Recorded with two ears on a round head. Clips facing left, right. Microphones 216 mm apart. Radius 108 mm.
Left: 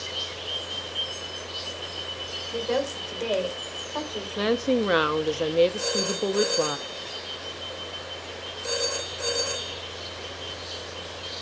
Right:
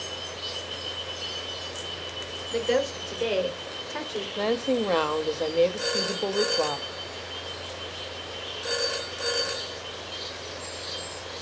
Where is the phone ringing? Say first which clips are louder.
Left 2 dB; 30° right (ahead or behind), 6.5 m.